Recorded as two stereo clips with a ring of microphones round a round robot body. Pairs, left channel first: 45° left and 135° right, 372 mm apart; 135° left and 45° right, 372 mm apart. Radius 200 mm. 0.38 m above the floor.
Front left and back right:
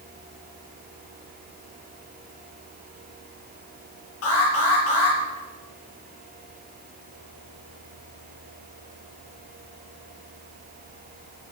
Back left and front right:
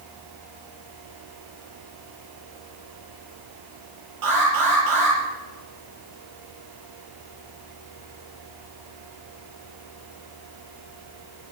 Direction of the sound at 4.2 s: 10° right.